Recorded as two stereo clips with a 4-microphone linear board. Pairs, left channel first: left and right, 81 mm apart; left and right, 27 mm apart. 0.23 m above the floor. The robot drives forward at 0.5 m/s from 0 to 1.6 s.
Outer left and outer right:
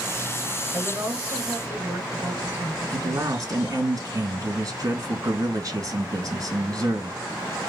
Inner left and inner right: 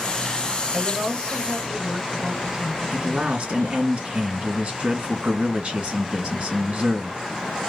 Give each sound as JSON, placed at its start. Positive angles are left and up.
{"t": 0.7, "sound": "a woman speaking", "side_deg": -30, "distance_m": 3.0}
{"t": 2.9, "sound": "a man speaking", "side_deg": -45, "distance_m": 2.5}